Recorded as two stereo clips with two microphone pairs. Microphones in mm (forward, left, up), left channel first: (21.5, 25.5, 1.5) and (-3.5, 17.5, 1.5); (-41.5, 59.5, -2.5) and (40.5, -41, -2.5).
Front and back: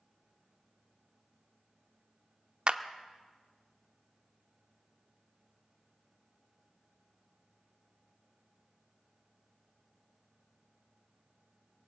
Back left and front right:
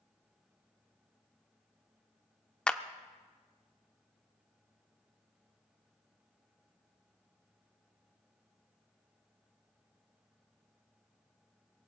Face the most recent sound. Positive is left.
turn(degrees=-150)